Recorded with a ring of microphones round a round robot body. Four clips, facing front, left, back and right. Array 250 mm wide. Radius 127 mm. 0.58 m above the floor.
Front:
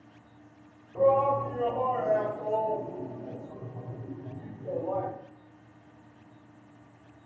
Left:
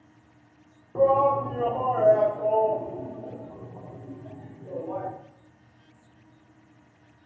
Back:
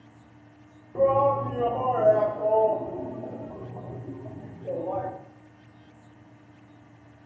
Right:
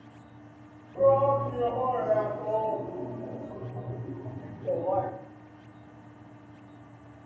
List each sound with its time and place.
0.9 s a shout: 120° left, 1.7 m; by 5.1 s 125° right, 1.5 m